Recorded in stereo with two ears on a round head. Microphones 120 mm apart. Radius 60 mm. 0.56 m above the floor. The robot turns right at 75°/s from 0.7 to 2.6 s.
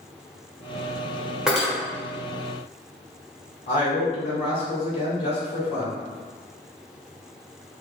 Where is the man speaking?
45° left (ahead or behind), 1.9 m.